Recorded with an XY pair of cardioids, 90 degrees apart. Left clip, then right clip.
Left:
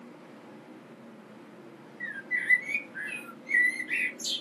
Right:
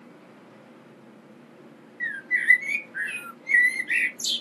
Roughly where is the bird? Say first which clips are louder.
Right 6 dB; ahead right.